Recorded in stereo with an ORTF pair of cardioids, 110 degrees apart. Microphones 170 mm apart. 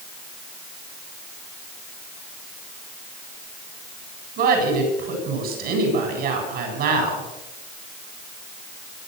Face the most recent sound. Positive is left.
turn(degrees=-65)